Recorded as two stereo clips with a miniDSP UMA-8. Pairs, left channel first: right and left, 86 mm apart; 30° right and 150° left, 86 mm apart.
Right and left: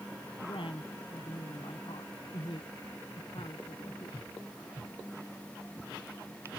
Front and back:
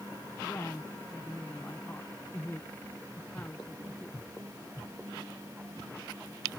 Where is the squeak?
I don't hear a squeak.